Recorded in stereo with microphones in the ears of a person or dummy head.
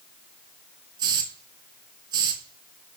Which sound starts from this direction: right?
A hiss, at 1.0 s.